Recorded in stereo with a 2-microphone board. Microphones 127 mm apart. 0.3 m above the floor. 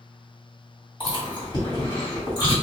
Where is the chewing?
40° left (ahead or behind), 1.9 m.